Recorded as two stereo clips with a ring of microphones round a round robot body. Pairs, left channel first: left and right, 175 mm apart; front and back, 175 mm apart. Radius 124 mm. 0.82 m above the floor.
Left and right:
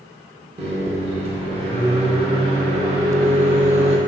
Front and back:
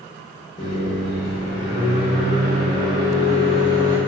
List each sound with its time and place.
0.6 s a microwave: 40° right, 0.7 m